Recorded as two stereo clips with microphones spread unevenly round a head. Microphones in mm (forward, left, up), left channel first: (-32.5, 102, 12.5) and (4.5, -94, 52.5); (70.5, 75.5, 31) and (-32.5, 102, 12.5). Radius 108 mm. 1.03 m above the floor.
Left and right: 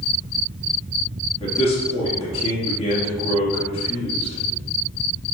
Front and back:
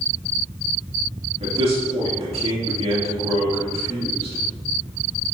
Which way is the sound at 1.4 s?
160° left.